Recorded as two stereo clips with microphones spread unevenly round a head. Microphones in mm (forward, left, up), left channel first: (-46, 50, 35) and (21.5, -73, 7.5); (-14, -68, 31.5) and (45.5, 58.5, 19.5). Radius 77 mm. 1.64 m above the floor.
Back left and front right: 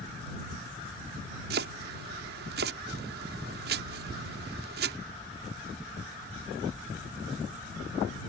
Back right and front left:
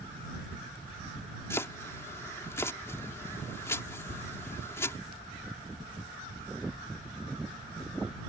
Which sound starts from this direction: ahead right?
Chopping, at 1.5 s.